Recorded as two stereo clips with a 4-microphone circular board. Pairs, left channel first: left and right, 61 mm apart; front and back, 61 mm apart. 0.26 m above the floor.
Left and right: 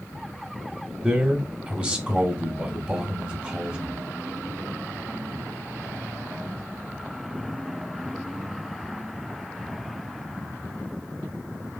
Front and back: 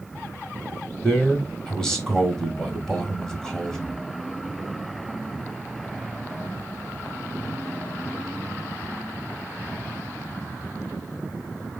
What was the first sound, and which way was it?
A man speaking, 65° right.